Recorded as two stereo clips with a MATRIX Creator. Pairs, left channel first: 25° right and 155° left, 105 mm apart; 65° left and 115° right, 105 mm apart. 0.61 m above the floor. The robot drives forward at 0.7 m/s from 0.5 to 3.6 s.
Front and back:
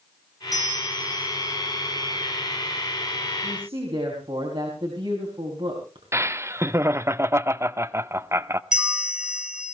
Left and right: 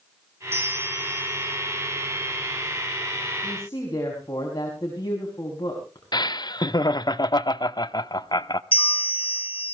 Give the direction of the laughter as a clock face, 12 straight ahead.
9 o'clock.